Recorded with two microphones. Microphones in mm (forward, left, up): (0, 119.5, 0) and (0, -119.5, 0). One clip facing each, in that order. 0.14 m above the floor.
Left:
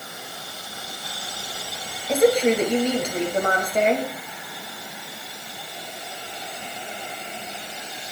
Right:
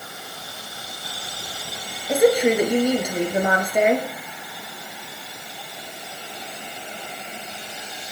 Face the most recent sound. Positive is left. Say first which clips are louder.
# right 1 dB
turn(degrees=-10)  # may be behind; listen again after turning